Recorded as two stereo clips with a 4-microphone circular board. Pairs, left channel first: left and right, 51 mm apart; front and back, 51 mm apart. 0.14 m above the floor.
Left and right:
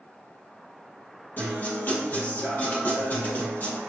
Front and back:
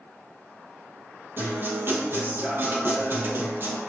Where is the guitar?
140° left, 3.5 m.